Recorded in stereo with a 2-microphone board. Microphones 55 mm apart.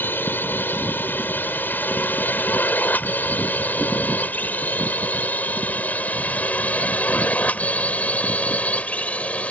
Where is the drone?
40° left (ahead or behind); by 9.5 s 25° left (ahead or behind).